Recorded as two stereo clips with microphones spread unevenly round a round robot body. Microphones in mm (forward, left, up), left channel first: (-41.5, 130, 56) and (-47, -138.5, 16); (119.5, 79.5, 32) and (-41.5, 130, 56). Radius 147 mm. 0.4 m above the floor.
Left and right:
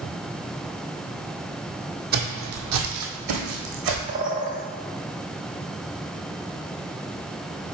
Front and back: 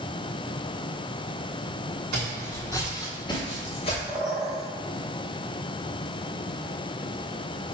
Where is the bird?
125° right, 1.3 m.